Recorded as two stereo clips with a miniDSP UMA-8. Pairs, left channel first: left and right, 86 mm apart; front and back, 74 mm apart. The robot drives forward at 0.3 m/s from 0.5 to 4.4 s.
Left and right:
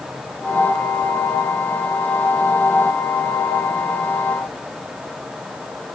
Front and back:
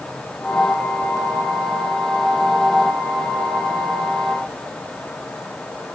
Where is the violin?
I don't hear a violin.